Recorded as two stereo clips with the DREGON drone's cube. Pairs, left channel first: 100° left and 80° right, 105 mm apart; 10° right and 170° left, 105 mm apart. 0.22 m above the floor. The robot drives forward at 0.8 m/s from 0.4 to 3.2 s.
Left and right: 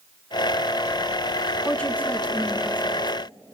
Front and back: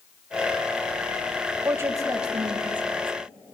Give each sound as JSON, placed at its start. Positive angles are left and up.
{"t": 1.6, "sound": "a woman speaking", "azimuth_deg": 150, "distance_m": 1.1}